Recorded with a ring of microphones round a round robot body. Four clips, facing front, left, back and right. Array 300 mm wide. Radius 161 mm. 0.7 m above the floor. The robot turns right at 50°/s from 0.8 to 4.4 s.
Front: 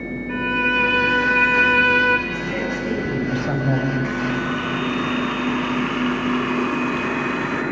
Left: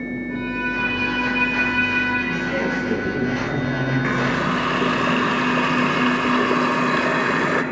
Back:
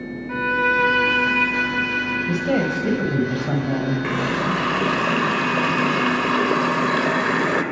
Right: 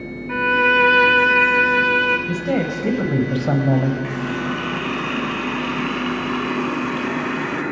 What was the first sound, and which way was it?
A violin, 100° right.